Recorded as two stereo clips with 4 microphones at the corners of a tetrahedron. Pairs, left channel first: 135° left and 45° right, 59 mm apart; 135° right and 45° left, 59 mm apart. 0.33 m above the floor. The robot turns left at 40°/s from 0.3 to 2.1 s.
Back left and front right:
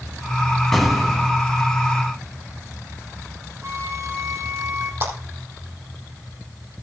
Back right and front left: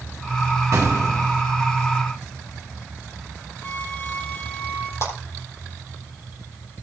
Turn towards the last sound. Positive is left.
turn(degrees=-95)